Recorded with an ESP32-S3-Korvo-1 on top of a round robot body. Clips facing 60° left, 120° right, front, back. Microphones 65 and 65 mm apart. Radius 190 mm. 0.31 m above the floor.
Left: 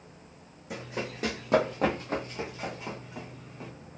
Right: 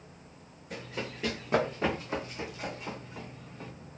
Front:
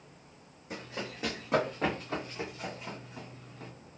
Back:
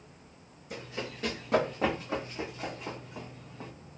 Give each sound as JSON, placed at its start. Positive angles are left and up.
{"t": 0.7, "sound": "running footsteps", "azimuth_deg": 60, "distance_m": 1.2}